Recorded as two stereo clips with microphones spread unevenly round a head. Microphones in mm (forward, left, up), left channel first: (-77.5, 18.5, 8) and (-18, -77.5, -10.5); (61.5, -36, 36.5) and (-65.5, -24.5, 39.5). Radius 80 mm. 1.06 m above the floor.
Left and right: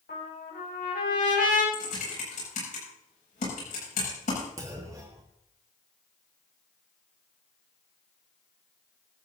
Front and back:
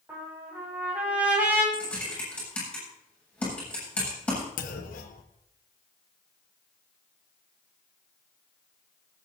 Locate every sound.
0.1 s a trumpet: 100° left, 7.5 m
1.7 s typing on a keyboard: 75° left, 8 m
4.6 s a clunk: 10° left, 1.2 m